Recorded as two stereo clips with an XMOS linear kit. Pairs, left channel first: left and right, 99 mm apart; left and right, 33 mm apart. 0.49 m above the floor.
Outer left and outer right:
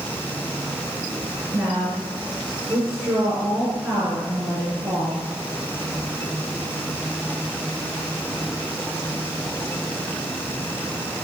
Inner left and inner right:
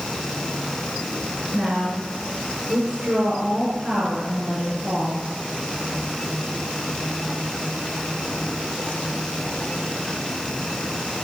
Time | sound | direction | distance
1.5 | a woman speaking | 15° right (ahead or behind) | 6 m